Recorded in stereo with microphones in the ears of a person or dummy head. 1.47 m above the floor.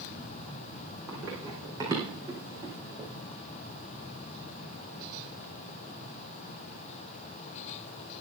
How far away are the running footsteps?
About 5 m.